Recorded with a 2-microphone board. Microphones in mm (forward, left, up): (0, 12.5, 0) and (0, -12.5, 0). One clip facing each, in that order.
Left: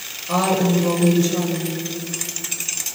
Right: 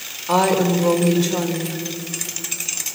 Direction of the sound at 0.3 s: 90° right.